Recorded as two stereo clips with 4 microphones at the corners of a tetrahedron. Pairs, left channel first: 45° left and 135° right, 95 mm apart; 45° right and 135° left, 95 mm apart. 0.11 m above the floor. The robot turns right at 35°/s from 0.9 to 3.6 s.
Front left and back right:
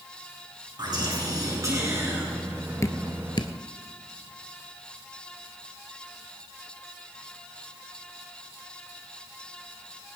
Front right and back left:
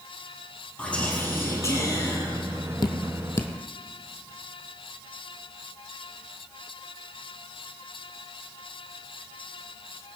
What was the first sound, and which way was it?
Whispering, 115° right.